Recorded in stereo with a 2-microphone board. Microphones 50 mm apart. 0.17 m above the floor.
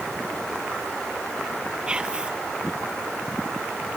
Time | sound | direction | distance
1.9 | whispering | 20° right (ahead or behind) | ?